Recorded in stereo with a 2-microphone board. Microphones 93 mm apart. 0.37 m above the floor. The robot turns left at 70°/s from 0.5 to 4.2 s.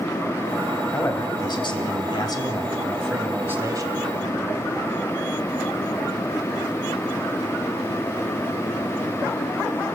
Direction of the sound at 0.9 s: 155° left.